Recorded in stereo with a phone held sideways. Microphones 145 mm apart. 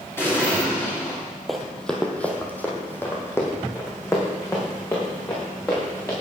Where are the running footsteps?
Centre (ahead or behind), 2.0 m; by 6.1 s 20° left (ahead or behind), 6.5 m.